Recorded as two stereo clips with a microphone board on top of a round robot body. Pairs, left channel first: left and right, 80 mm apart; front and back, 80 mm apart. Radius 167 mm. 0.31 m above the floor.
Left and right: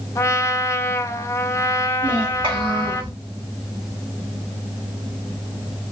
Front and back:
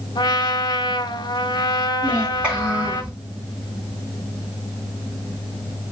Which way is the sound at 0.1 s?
35° left.